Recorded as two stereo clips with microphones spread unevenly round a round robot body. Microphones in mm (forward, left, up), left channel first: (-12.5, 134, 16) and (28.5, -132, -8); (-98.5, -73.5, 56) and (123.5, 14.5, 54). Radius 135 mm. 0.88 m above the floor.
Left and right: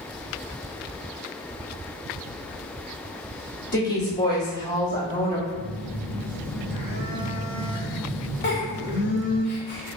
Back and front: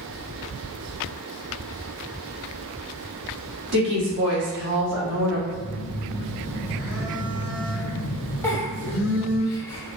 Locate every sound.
3.7 s a woman speaking: 40° left, 1.9 m
5.5 s a phone buzzing: 40° left, 1.5 m
8.4 s a giggle: 125° left, 0.8 m